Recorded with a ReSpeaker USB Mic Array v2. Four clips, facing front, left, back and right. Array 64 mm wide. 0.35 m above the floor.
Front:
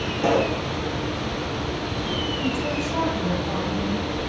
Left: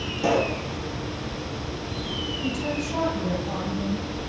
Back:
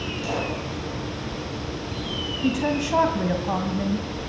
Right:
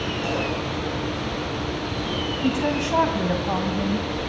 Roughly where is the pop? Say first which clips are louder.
Left 6 dB, front 8 dB; ahead left.